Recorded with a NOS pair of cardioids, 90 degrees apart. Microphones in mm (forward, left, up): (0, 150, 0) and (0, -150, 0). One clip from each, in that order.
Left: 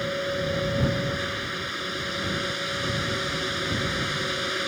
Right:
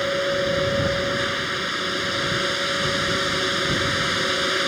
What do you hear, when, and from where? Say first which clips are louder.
0.0 s a fan: right 6 dB; 40° right